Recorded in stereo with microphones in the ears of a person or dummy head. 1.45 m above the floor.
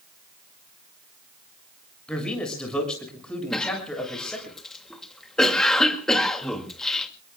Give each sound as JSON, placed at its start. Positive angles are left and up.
{"t": 2.1, "sound": "a man speaking", "side_deg": 5, "distance_m": 6.5}
{"t": 3.5, "sound": "a cough", "side_deg": 0, "distance_m": 2.5}